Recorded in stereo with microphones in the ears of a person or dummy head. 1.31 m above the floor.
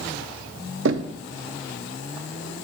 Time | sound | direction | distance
0.8 | knocking | 65° right (ahead or behind) | 0.6 m